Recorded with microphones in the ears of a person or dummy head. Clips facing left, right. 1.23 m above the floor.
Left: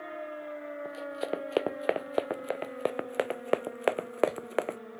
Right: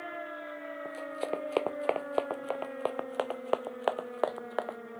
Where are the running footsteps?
10° left (ahead or behind); by 4.8 s 40° left (ahead or behind).